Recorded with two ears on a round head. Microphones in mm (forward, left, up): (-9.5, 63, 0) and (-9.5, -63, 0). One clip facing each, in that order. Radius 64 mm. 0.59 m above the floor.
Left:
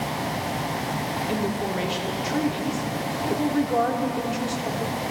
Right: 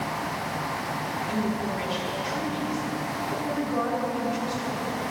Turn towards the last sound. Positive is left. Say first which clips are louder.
# left 1 dB
turn(degrees=55)  # may be behind; listen again after turning